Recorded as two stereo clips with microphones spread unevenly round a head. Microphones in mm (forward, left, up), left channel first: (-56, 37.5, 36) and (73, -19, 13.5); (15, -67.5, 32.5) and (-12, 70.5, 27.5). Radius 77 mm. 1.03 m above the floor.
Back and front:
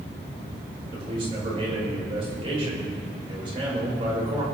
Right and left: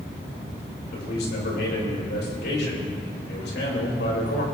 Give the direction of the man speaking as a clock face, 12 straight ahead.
3 o'clock.